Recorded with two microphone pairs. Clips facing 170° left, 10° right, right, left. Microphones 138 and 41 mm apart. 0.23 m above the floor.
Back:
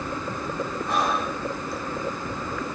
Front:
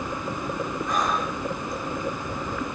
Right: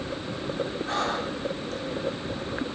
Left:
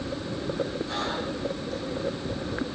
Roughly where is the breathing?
Behind right.